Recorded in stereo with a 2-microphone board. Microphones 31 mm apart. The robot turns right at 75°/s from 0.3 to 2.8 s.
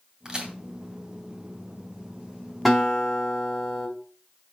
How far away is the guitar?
About 3 m.